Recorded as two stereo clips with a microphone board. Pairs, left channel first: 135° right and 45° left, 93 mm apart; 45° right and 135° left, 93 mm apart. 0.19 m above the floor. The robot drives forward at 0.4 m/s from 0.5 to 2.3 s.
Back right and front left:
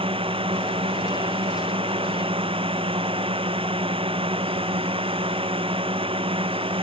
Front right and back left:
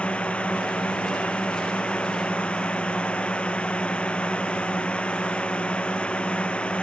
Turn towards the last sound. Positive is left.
turn(degrees=35)